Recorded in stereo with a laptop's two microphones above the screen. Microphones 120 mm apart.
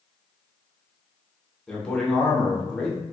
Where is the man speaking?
5° left (ahead or behind), 0.7 m.